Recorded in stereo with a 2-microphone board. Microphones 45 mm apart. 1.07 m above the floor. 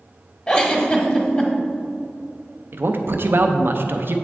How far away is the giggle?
About 1.0 m.